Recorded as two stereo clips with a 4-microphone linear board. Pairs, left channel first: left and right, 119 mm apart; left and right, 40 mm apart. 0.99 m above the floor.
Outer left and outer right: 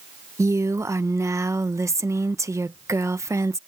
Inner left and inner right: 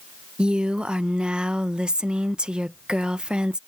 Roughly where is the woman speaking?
Right.